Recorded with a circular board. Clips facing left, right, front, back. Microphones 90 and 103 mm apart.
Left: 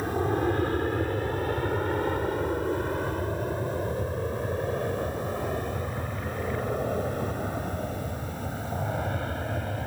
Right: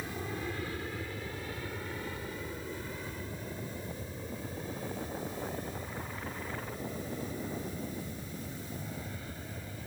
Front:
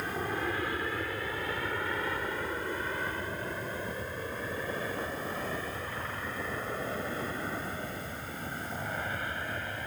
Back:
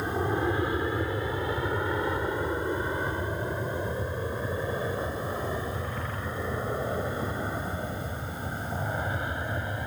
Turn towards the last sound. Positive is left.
turn(degrees=110)